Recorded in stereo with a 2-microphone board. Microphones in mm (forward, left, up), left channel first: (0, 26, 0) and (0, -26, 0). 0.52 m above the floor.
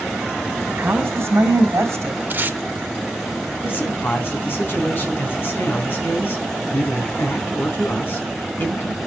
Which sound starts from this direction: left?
A man speaking, at 3.6 s.